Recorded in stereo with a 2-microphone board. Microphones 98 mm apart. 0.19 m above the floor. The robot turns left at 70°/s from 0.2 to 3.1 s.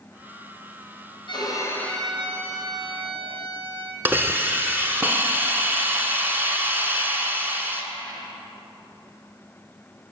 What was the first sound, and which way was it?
A violin, 55° left.